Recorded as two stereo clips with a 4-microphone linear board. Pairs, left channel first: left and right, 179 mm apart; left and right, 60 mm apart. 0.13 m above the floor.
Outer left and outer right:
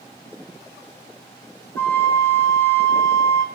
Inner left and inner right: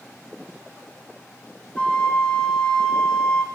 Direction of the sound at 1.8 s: 15° left (ahead or behind).